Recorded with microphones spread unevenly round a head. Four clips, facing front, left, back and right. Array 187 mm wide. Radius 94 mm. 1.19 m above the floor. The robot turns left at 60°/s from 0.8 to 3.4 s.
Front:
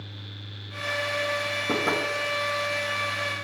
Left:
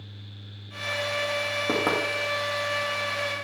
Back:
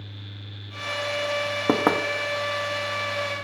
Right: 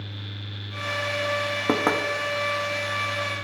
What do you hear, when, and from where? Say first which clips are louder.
1.7 s knocking: right 3 dB, back 6 dB; 155° right, 1.2 m; by 2.0 s 175° right, 1.2 m